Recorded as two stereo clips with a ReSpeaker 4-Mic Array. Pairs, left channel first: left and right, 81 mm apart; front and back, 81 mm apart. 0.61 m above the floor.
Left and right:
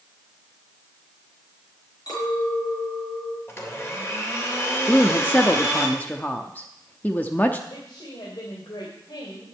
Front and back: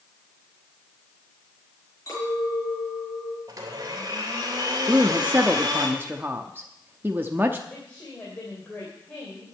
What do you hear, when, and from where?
2.1 s a clink: 50° left, 6 m
3.5 s a blender: 145° left, 3 m
4.9 s a woman speaking: 140° left, 0.7 m
7.7 s a woman speaking: 70° left, 3 m